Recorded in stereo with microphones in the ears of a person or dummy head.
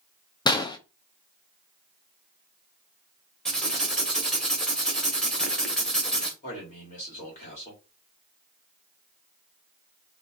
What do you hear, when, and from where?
0.5 s a gunshot: 25° left (ahead or behind), 0.6 m
3.5 s writing: 5° left (ahead or behind), 1.4 m
6.4 s a man speaking: 40° left (ahead or behind), 2.5 m